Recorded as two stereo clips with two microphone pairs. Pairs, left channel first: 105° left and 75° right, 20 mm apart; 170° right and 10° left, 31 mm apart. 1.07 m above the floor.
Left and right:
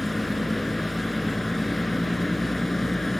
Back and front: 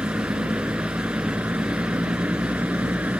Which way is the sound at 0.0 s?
35° left.